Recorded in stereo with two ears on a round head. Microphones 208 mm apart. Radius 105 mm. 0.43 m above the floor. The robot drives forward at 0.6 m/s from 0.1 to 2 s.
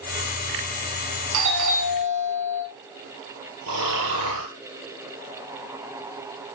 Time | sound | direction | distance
1.3 | a doorbell | 60° right (ahead or behind) | 4.5 m
3.7 | snoring | 85° right | 8.5 m